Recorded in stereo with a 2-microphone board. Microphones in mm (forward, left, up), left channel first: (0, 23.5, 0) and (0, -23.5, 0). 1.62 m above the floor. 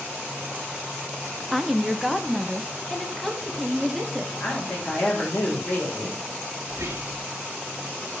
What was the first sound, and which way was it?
A woman speaking, 5° right (ahead or behind).